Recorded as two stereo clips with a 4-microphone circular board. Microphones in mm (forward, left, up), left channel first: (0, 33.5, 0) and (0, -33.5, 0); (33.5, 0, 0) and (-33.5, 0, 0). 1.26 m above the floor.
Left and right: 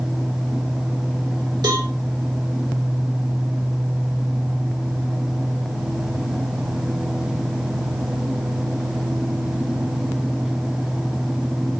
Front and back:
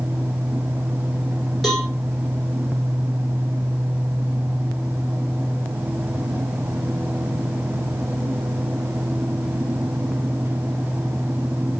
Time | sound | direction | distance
1.6 | a cowbell | 85° right | 3.5 m